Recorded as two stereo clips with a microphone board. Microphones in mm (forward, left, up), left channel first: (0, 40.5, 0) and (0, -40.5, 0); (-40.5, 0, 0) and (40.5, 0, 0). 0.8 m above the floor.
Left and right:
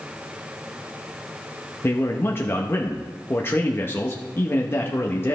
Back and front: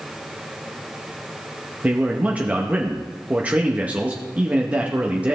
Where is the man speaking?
60° left, 0.8 m.